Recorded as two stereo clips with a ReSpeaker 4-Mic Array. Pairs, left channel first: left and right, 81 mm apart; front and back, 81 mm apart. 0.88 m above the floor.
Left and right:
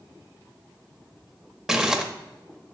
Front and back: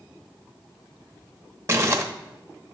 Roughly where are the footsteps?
I don't hear footsteps.